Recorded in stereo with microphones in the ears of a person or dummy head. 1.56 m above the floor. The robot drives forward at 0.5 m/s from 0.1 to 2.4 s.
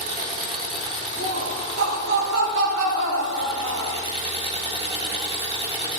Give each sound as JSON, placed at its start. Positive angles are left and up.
{"t": 0.0, "sound": "an engine running", "side_deg": -50, "distance_m": 3.5}
{"t": 1.2, "sound": "laughter", "side_deg": -80, "distance_m": 7.5}